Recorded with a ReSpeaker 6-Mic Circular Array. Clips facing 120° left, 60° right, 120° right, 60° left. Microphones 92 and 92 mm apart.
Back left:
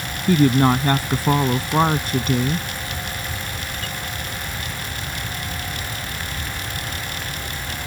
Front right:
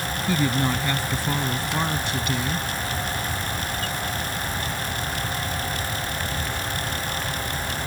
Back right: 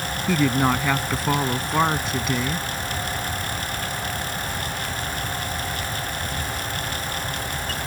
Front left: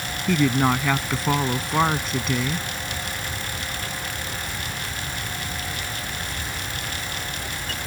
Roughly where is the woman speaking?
Behind left.